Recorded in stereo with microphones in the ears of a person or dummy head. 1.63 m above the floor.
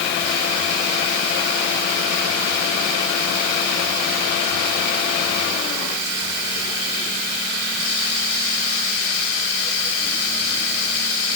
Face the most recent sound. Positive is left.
No sound to turn to.